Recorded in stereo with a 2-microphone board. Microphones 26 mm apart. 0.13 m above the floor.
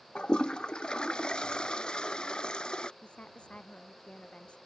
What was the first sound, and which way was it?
A toilet flushing, 30° left (ahead or behind).